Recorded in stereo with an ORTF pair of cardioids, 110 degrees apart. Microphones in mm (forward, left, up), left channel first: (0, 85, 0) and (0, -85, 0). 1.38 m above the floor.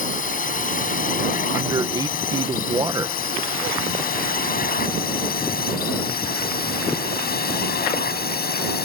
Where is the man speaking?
25° right.